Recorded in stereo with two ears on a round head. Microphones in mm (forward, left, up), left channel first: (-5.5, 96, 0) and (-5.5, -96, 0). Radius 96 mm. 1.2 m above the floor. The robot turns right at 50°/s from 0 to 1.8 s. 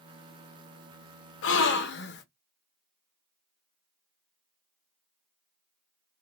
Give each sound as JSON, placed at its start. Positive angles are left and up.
{"t": 1.4, "sound": "a gasp", "side_deg": 65, "distance_m": 0.7}